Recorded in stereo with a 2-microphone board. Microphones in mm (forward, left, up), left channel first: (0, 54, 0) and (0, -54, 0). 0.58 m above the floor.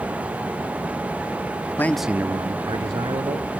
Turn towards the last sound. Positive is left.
turn(degrees=-70)  # may be behind; listen again after turning